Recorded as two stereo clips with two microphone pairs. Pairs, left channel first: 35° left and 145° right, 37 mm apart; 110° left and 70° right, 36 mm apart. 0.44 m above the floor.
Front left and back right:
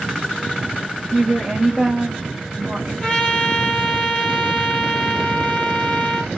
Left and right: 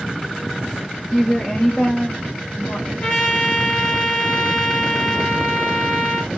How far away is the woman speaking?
About 1.4 m.